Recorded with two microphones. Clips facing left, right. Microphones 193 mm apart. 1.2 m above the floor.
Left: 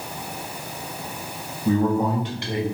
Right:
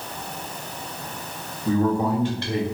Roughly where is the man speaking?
Left.